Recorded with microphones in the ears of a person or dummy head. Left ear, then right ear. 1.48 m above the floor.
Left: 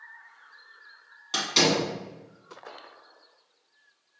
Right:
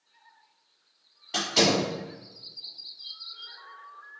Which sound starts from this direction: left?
A door slam, at 1.3 s.